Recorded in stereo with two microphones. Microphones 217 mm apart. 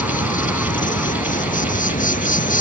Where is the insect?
40° left (ahead or behind).